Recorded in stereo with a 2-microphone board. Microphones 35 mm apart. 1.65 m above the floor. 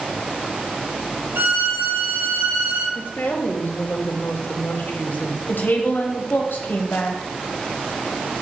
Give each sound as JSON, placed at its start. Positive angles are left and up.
{"t": 1.4, "sound": "a violin", "side_deg": -80, "distance_m": 2.5}
{"t": 3.0, "sound": "a woman speaking", "side_deg": 80, "distance_m": 1.6}
{"t": 5.5, "sound": "a woman speaking", "side_deg": 70, "distance_m": 1.7}